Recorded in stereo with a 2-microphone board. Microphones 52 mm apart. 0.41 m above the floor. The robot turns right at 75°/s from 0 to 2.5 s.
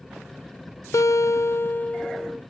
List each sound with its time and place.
0.9 s a guitar: 80° left, 0.5 m; by 2.4 s 170° right, 0.5 m